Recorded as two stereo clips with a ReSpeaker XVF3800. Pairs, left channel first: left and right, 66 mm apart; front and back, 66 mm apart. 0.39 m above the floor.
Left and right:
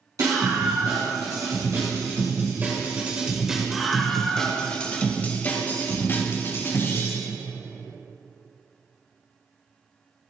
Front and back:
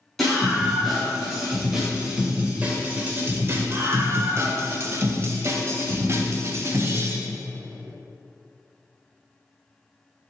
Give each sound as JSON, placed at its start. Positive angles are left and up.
{"t": 0.2, "sound": "a scream", "azimuth_deg": -90, "distance_m": 3.0}